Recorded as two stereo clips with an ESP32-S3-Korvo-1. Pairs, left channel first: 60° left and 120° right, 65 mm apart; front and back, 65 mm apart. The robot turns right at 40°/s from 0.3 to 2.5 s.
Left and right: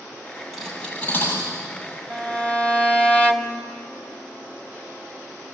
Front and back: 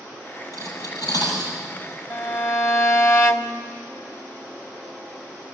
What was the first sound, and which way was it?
Cutlery clinking, 20° right.